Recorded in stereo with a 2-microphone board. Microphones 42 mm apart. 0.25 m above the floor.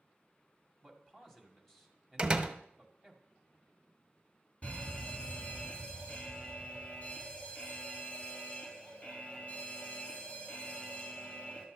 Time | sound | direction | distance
0.8 | a man speaking | 5° left (ahead or behind) | 1.8 m
2.2 | a door slam | 25° right (ahead or behind) | 0.8 m
4.6 | a fire alarm | 35° left (ahead or behind) | 3 m